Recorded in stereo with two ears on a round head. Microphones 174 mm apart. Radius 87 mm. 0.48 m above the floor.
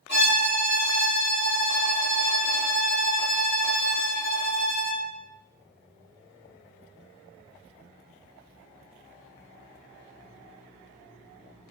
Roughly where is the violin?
Left.